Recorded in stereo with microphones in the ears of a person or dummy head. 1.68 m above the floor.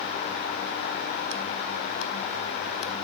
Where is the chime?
I don't hear a chime.